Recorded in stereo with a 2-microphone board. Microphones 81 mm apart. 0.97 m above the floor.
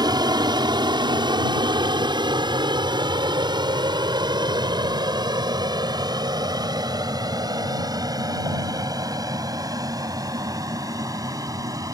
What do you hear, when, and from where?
0.0 s an aircraft: 60° right (ahead or behind); by 11.9 s 45° right (ahead or behind)